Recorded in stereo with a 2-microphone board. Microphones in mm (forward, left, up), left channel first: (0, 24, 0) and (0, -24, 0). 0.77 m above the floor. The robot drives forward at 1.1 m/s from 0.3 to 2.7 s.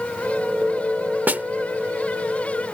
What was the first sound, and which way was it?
A snare drum, 35° right (ahead or behind).